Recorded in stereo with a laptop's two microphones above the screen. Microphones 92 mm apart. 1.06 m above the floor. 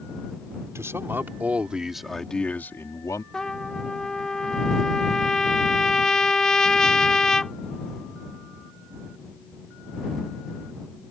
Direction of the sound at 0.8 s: 30° right (ahead or behind).